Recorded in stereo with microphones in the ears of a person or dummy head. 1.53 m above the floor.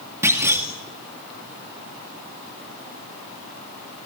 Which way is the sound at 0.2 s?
20° right (ahead or behind).